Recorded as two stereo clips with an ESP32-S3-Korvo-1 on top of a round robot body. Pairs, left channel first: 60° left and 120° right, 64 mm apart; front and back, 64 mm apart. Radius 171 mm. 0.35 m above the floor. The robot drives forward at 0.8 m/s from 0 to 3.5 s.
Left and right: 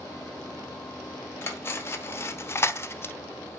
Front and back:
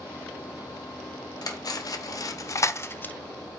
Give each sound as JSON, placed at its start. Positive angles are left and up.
{"t": 1.4, "sound": "cutlery clinking", "azimuth_deg": 10, "distance_m": 1.7}